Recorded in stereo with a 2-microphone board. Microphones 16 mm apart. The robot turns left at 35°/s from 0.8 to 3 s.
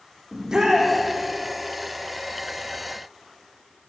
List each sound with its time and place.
0.3 s a shout: 40° right (ahead or behind), 9.5 m; by 0.9 s 35° right (ahead or behind), 9.5 m